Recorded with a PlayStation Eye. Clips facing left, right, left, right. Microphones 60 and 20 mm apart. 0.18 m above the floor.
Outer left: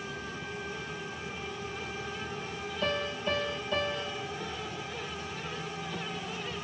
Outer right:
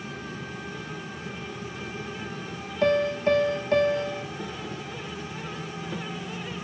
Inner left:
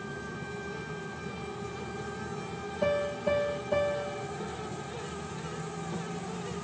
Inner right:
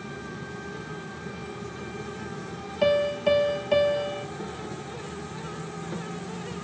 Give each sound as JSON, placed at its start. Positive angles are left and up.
{"t": 0.0, "sound": "an insect", "side_deg": -70, "distance_m": 1.1}
{"t": 2.8, "sound": "a piano", "side_deg": -70, "distance_m": 1.2}